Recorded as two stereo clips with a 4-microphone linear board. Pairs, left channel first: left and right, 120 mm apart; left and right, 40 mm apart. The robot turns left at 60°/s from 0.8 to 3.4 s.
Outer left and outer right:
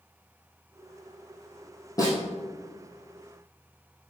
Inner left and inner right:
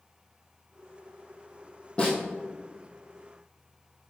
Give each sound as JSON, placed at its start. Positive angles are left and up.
{"t": 2.0, "sound": "a snare drum", "side_deg": 30, "distance_m": 3.0}